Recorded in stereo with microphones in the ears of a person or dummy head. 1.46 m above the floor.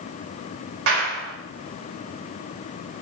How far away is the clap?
About 4 m.